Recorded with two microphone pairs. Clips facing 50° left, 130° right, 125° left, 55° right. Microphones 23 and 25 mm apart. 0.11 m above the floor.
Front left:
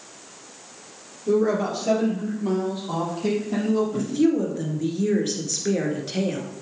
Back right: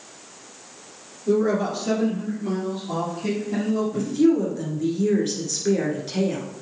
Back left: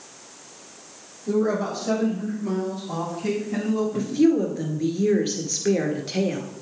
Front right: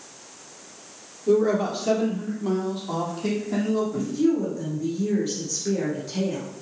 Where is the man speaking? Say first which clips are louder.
Even, front right 3 dB; 40° right, 3 m; by 4.1 s 20° right, 5.5 m.